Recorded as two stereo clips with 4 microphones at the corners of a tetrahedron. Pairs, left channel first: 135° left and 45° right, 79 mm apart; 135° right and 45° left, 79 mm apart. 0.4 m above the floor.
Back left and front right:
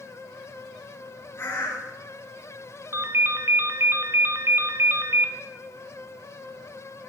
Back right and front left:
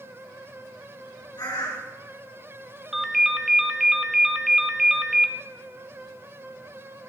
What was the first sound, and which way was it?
A bird, 165° right.